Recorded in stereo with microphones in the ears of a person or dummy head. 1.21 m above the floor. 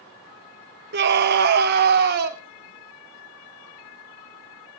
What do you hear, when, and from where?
0.9 s a scream: 55° right (ahead or behind), 1.3 m; by 2.4 s 50° right (ahead or behind), 2.5 m